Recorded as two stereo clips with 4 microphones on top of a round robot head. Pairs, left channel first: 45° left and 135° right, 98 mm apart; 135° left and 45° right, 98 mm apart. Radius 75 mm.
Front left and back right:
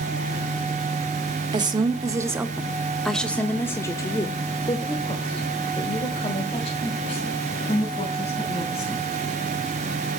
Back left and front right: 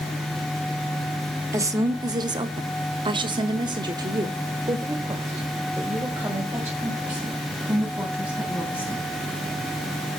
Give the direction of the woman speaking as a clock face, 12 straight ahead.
3 o'clock.